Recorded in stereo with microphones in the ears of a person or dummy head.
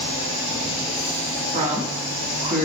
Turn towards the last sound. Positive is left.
turn(degrees=-40)  # may be behind; listen again after turning